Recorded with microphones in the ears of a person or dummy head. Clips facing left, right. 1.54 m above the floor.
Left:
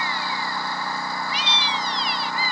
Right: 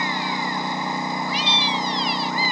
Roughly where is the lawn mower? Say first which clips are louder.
Right 3 dB; centre.